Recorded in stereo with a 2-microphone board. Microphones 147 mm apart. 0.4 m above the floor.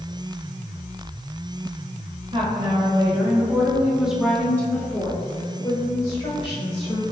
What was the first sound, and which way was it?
A woman speaking, 40° right (ahead or behind).